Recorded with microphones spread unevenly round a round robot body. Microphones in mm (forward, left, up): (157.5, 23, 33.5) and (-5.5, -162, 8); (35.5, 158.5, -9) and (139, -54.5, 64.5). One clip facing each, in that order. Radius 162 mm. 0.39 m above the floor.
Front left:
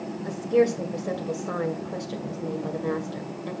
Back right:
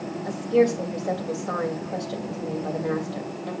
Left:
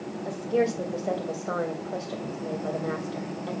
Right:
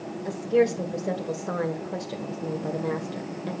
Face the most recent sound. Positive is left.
turn(degrees=5)